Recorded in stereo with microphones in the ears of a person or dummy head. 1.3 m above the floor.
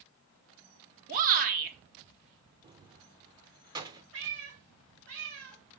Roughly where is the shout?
Right.